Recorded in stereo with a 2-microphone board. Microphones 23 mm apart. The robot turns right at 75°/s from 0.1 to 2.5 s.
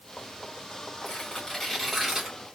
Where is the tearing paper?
120° left, 2.5 m; by 2.4 s 135° right, 2.5 m.